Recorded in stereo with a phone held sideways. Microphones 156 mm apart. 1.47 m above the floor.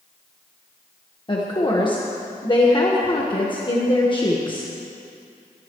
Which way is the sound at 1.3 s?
30° left (ahead or behind).